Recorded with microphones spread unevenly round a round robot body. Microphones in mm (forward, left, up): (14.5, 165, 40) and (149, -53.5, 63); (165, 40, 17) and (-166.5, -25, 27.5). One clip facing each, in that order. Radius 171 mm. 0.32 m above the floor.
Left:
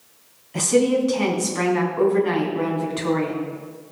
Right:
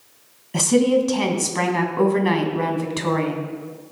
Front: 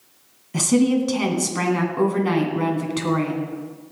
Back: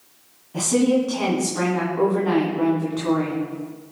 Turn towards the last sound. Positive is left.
turn(degrees=-30)